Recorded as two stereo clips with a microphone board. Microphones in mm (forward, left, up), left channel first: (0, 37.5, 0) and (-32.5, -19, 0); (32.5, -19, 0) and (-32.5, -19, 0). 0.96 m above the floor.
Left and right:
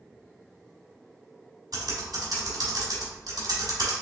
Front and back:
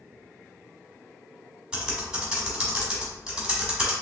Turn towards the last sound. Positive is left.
turn(degrees=-105)